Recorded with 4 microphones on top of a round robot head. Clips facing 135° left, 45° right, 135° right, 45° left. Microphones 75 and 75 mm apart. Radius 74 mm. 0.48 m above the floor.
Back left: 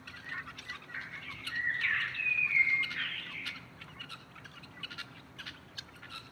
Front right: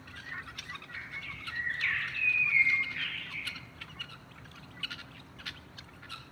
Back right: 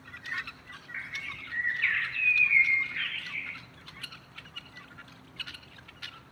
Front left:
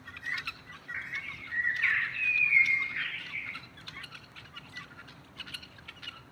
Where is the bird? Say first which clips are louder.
Even, even; 115° left, 0.7 m.